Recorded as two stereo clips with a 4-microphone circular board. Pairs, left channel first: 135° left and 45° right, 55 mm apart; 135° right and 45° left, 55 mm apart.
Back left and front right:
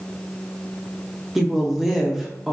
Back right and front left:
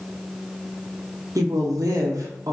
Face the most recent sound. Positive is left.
turn(degrees=40)